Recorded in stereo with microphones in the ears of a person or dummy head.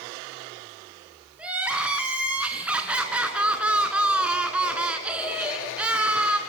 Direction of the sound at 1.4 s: 10° right (ahead or behind).